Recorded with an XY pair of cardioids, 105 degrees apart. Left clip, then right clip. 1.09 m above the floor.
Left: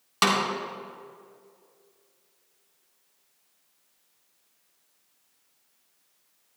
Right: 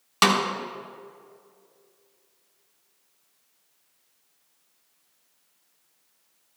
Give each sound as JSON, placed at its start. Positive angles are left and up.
{"t": 0.2, "sound": "a snare drum", "azimuth_deg": -15, "distance_m": 1.6}